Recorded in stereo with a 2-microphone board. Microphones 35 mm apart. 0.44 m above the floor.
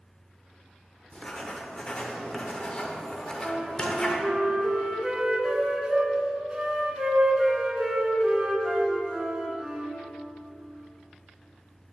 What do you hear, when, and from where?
1.1 s writing: 25° left (ahead or behind), 0.5 m
3.2 s a flute: 25° right (ahead or behind), 0.6 m